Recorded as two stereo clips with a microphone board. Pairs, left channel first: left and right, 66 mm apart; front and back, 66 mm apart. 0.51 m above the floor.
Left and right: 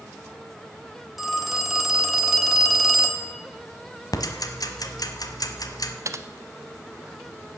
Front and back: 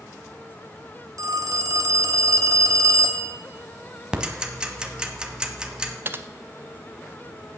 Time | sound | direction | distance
1.2 | a phone ringing | 175° right | 1.2 m
4.1 | ticking | 105° left | 1.1 m
6.0 | typing on a keyboard | 125° right | 0.7 m